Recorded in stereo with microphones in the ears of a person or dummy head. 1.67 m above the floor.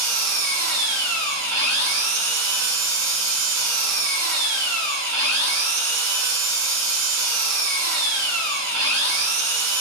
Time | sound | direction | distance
0.0 | an engine running | 65° right (ahead or behind) | 0.9 m